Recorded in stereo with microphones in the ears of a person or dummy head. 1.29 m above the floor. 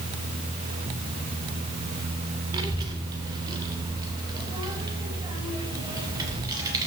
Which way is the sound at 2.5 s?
30° right (ahead or behind).